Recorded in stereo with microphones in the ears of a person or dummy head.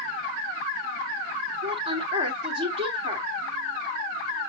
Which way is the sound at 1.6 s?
45° right (ahead or behind).